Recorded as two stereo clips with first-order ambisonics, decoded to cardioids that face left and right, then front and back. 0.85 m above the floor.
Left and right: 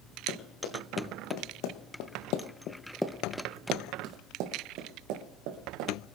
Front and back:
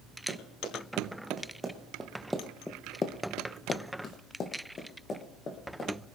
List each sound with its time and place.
0.3 s running footsteps: 105° left, 4 m; by 5.9 s 65° right, 4.5 m